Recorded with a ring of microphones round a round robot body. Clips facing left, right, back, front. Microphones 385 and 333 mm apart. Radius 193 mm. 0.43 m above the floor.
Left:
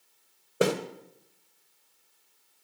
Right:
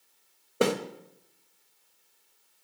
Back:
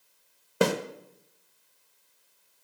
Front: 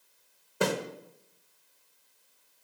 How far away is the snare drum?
About 1.3 m.